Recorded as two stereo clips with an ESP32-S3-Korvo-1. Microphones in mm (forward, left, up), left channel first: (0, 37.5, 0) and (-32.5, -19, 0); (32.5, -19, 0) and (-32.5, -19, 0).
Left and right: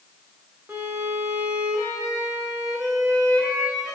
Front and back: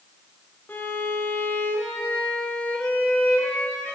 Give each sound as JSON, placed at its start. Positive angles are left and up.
{"t": 0.7, "sound": "a violin", "azimuth_deg": -65, "distance_m": 3.5}